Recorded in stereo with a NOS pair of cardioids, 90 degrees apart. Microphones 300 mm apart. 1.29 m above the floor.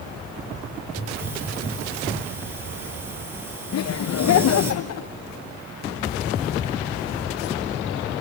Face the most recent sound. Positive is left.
turn(degrees=55)